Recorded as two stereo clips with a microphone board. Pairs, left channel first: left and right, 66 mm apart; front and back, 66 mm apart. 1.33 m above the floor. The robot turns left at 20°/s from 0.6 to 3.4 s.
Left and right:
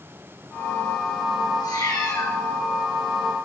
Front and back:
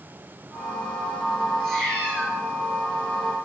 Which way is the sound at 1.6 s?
85° left.